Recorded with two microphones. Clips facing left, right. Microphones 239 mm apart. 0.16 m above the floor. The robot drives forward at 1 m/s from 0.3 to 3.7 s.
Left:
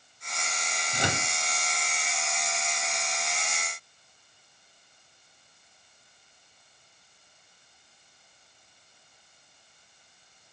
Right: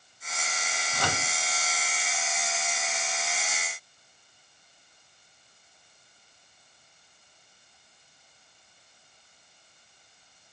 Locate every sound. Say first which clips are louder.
0.9 s a microwave: left 2 dB; 20° left (ahead or behind), 0.9 m